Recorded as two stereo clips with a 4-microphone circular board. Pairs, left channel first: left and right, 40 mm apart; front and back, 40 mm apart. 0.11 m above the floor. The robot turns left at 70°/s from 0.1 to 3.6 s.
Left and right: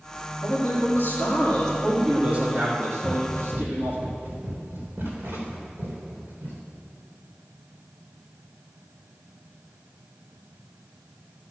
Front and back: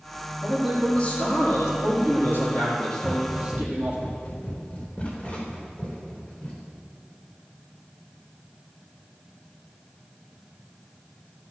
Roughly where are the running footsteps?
Ahead.